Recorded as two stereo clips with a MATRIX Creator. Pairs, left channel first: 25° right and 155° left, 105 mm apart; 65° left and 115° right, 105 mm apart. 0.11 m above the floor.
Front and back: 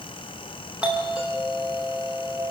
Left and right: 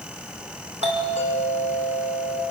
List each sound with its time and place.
0.8 s a doorbell: 125° right, 7 m